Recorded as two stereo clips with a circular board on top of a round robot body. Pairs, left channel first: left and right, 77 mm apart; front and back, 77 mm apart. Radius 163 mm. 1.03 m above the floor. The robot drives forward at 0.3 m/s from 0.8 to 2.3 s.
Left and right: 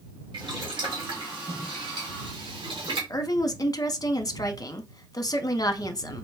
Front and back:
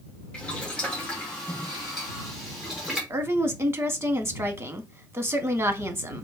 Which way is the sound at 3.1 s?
125° left.